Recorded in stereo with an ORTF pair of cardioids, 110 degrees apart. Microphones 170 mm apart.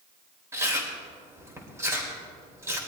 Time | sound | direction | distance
0.5 | chewing | 15° right | 3.5 m